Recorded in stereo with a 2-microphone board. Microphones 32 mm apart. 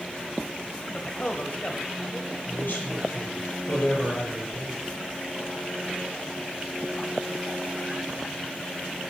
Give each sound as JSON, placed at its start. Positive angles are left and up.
{"t": 0.8, "sound": "a man speaking", "side_deg": 35, "distance_m": 1.4}
{"t": 2.5, "sound": "a man speaking", "side_deg": 60, "distance_m": 6.0}